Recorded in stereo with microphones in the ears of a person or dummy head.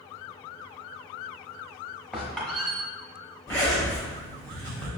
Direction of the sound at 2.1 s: Centre (ahead or behind).